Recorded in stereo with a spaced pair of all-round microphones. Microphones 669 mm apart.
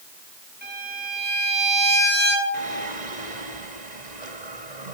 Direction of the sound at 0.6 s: 15° right (ahead or behind).